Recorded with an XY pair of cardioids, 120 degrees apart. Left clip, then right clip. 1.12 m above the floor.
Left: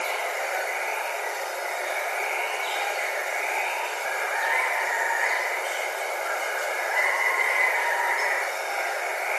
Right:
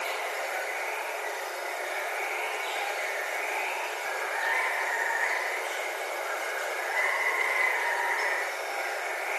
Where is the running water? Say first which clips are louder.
Left 4 dB; 30° left, 0.9 m.